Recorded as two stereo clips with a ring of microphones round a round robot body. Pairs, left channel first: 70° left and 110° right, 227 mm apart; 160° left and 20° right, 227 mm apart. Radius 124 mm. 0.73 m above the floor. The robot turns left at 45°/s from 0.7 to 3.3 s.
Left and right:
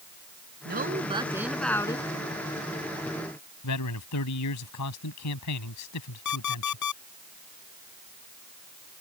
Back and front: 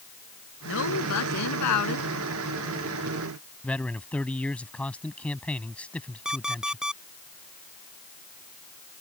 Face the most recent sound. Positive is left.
turn(degrees=65)